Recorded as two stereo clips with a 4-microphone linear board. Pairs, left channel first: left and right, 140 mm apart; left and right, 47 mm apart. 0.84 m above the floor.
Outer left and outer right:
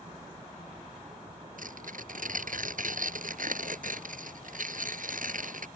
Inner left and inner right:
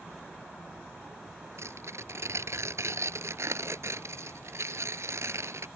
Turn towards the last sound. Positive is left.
turn(degrees=-75)  # may be behind; listen again after turning